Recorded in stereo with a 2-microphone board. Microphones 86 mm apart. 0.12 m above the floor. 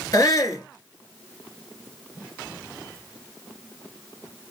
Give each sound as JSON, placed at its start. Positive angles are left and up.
{"t": 0.1, "sound": "a shout", "side_deg": 45, "distance_m": 1.6}